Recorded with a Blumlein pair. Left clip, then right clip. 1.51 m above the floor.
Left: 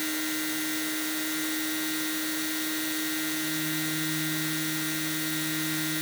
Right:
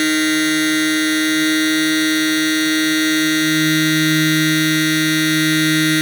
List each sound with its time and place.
0.0 s a machine running: 55° right